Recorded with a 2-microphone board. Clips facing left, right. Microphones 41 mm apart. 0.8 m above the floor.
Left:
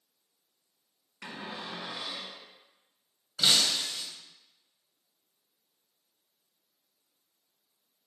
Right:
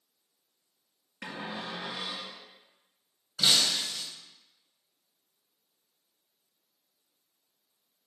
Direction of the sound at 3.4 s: 10° left (ahead or behind).